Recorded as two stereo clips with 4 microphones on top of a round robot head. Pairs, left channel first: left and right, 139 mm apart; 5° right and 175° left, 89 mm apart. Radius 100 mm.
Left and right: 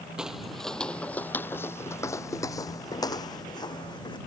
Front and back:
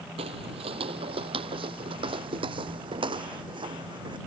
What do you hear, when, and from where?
0.2 s footsteps: 175° right; by 4.2 s 150° left